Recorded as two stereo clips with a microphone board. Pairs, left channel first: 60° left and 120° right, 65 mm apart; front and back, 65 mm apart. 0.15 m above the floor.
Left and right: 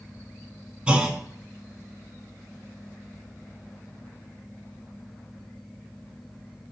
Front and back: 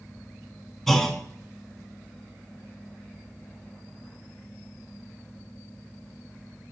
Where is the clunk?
80° right, 0.5 m.